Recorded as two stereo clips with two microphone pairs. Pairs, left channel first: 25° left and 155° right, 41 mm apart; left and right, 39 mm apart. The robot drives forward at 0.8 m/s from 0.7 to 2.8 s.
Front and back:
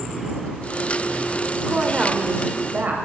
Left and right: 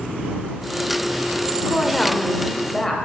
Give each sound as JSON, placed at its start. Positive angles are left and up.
{"t": 1.7, "sound": "a woman speaking", "azimuth_deg": 140, "distance_m": 0.9}